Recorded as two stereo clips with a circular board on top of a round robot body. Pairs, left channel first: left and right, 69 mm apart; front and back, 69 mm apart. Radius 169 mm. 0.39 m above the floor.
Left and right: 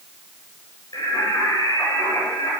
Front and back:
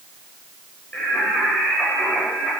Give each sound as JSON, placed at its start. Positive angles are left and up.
{"t": 0.9, "sound": "singing", "azimuth_deg": 70, "distance_m": 9.5}